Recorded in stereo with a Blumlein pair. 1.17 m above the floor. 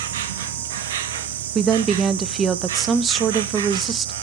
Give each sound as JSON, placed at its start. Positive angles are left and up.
{"t": 0.0, "sound": "an insect", "azimuth_deg": -55, "distance_m": 0.8}
{"t": 1.6, "sound": "a woman speaking", "azimuth_deg": -20, "distance_m": 0.5}